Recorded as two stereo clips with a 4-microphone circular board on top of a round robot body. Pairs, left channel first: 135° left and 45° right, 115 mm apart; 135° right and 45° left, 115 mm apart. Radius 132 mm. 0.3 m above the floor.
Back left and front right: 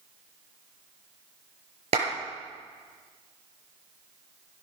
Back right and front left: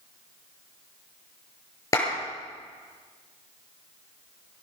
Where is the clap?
70° right, 7 m.